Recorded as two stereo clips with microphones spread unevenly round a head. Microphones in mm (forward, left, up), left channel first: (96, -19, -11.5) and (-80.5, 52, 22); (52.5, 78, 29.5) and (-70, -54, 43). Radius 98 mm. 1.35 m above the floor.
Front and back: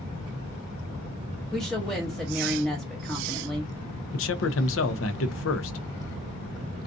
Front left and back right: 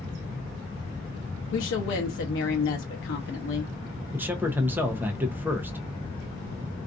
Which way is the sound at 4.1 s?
55° right.